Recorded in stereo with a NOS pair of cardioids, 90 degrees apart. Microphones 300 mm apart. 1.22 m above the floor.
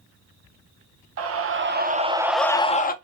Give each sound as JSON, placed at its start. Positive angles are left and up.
{"t": 1.2, "sound": "a scream", "azimuth_deg": -55, "distance_m": 0.9}